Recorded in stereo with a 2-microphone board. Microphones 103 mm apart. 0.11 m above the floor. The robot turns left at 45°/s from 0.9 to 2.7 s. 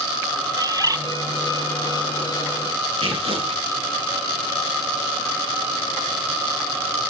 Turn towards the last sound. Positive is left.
turn(degrees=-85)